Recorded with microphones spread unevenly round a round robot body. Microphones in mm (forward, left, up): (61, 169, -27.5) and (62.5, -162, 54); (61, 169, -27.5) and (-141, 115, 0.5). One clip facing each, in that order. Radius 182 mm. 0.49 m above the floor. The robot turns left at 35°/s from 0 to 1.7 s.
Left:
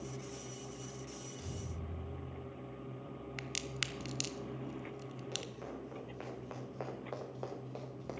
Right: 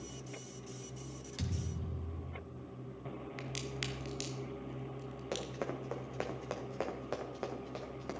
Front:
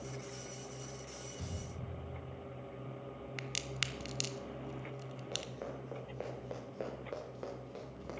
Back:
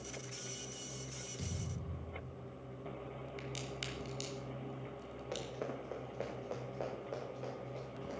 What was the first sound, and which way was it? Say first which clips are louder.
A thud: right 3 dB, back 3 dB; 90° right.